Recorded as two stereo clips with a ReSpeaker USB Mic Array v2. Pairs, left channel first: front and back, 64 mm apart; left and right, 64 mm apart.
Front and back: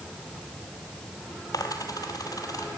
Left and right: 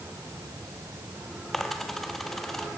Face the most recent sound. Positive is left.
turn(degrees=5)